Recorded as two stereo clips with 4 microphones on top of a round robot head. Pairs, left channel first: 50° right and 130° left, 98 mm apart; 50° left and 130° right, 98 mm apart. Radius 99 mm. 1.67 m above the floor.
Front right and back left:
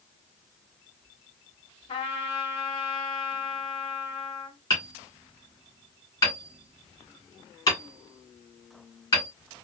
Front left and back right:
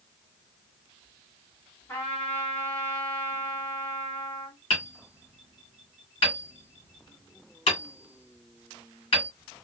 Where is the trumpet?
20° right, 1.6 m.